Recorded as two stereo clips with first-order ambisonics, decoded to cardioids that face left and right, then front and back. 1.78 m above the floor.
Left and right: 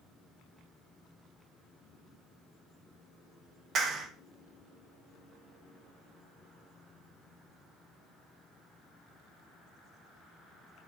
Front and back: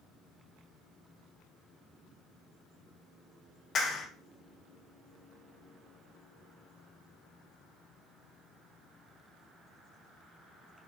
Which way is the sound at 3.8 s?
45° right.